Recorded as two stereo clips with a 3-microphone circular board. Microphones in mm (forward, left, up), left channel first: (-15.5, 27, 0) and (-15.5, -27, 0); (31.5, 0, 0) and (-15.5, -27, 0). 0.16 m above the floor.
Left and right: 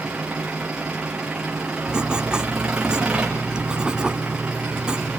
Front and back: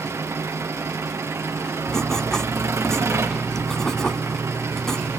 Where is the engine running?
165° right, 5.5 m.